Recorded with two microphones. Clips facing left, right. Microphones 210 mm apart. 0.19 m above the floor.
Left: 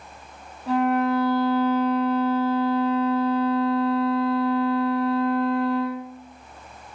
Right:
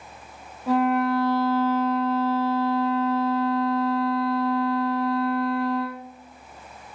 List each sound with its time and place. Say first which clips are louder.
0.7 s a violin: even; 5° right (ahead or behind), 1.0 m